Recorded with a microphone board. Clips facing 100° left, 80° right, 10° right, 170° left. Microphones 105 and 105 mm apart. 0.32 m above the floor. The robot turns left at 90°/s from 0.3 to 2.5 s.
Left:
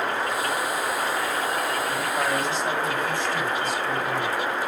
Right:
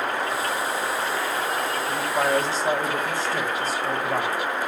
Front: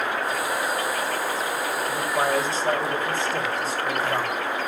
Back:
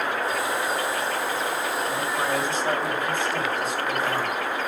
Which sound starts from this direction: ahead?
A man speaking, at 1.9 s.